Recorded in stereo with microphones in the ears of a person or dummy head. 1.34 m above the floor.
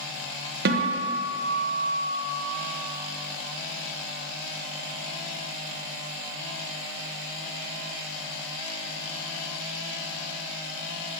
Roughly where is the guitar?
Right.